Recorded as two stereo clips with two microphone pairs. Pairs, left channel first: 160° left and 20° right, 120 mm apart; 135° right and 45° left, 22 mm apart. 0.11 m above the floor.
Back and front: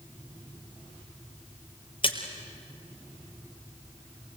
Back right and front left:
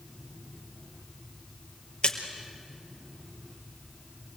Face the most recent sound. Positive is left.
turn(degrees=-170)